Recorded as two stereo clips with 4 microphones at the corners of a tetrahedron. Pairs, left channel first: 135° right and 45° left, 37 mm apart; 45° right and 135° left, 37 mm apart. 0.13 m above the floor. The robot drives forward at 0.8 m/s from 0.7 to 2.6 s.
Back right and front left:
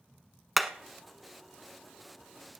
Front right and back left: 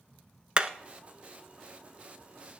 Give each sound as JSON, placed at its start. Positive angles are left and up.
{"t": 0.6, "sound": "hammering", "azimuth_deg": 125, "distance_m": 0.8}